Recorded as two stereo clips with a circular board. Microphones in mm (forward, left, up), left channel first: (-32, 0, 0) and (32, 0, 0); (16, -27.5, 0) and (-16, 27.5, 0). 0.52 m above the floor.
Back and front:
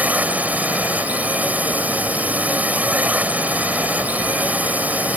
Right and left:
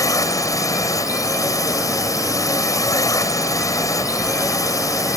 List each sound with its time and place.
0.0 s a drone: 60° right